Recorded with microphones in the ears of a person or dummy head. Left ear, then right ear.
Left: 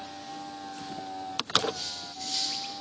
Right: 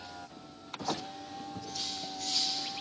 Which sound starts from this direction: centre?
Cutlery clinking, at 1.7 s.